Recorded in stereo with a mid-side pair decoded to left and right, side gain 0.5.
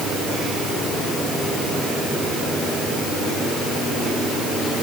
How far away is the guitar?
I don't hear a guitar.